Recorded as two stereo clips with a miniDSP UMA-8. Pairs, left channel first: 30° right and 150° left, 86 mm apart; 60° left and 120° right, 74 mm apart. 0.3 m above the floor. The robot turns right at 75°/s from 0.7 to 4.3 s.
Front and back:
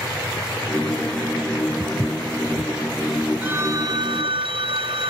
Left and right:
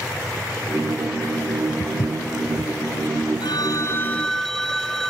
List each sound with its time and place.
1.8 s footsteps: 65° left; by 2.7 s 130° left
3.4 s a phone ringing: 80° left; by 5.1 s 145° left